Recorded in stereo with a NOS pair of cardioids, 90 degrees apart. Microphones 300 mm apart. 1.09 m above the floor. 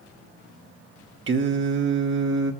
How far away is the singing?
About 1.4 m.